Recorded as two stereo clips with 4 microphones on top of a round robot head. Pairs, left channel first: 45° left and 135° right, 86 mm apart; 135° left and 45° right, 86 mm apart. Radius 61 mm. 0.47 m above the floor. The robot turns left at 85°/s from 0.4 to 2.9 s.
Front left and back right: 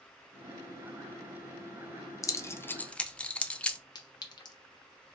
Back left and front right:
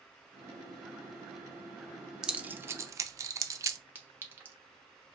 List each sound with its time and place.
2.2 s keys jangling: 35° left, 0.7 m; by 3.8 s 25° right, 0.7 m
4.0 s a clink: 15° left, 1.1 m